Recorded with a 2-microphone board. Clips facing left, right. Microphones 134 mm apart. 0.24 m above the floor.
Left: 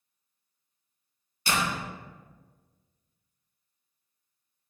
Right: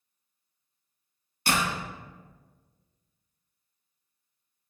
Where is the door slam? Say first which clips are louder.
Right 1 dB; 60° right (ahead or behind), 1.4 m.